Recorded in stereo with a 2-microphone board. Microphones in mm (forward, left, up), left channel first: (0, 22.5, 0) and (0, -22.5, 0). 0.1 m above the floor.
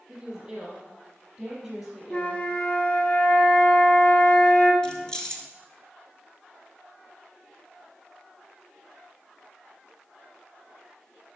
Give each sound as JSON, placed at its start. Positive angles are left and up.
{"t": 0.1, "sound": "a woman speaking", "side_deg": -15, "distance_m": 4.0}
{"t": 2.1, "sound": "a flute", "side_deg": 30, "distance_m": 1.2}
{"t": 4.8, "sound": "keys jangling", "side_deg": 15, "distance_m": 1.3}